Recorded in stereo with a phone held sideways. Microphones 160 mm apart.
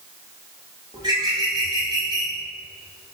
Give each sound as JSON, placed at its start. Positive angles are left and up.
{"t": 0.9, "sound": "a bird", "side_deg": -25, "distance_m": 1.7}